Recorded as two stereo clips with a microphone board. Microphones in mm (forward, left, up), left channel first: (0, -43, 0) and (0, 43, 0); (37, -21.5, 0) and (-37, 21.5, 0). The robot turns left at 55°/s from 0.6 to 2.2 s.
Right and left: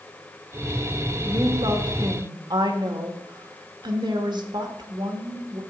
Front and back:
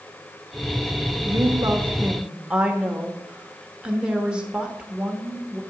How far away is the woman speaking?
About 1.3 m.